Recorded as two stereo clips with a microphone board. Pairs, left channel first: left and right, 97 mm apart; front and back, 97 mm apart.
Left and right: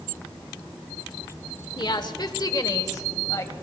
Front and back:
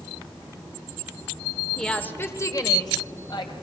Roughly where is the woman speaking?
Left.